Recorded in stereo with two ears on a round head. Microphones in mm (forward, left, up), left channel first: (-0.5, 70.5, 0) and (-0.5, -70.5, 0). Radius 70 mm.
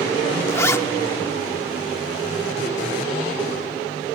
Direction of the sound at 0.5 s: 20° left (ahead or behind).